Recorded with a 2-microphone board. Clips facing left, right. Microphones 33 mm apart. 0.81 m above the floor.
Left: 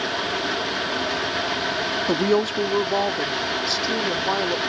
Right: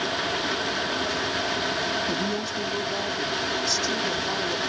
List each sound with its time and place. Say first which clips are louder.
2.1 s a woman speaking: left 7 dB; 65° left (ahead or behind); by 4.6 s 40° left (ahead or behind)